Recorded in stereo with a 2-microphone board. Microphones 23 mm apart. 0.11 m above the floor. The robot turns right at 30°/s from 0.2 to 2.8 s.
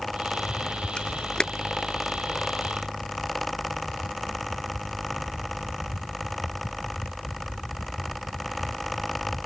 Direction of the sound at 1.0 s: 40° left (ahead or behind).